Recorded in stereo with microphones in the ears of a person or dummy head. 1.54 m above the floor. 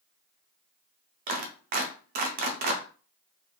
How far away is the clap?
About 0.5 m.